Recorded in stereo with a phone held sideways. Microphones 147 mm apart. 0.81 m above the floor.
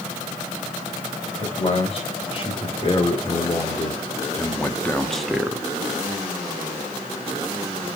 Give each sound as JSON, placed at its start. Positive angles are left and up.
{"t": 1.4, "sound": "a man speaking", "side_deg": 40, "distance_m": 3.5}